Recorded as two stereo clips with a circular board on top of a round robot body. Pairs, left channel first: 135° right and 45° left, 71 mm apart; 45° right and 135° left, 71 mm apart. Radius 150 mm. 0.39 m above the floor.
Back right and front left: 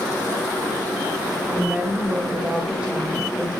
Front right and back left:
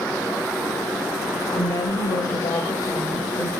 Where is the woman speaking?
15° right, 3 m; by 3.5 s 35° right, 3 m.